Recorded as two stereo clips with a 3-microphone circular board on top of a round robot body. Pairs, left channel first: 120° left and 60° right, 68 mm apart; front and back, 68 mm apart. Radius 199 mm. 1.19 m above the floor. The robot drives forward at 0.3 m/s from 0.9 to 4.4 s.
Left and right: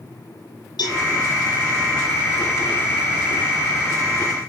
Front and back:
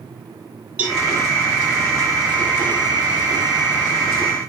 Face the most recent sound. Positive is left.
turn(degrees=120)